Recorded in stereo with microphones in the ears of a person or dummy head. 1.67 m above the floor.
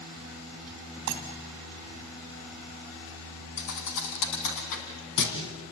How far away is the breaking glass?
About 2.5 m.